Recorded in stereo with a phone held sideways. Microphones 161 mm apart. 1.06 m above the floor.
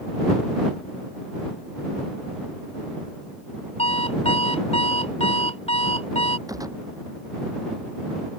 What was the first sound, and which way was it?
An alarm clock, 40° left (ahead or behind).